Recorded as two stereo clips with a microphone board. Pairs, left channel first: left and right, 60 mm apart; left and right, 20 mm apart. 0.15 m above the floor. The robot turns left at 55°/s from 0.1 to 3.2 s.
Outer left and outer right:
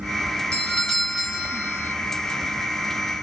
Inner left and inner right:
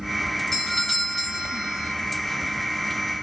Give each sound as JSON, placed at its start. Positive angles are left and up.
{"t": 0.5, "sound": "a doorbell", "side_deg": 10, "distance_m": 2.0}